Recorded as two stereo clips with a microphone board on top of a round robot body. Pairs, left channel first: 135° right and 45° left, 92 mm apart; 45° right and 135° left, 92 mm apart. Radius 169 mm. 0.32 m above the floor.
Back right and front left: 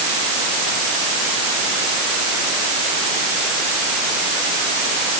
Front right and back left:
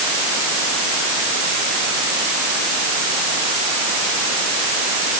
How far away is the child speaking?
I don't hear a child speaking.